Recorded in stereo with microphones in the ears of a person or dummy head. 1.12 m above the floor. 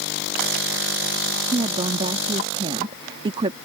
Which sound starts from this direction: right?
A woman speaking, at 1.5 s.